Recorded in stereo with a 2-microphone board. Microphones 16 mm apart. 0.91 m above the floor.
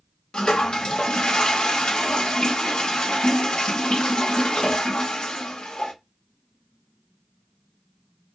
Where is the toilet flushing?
70° left (ahead or behind), 0.6 m.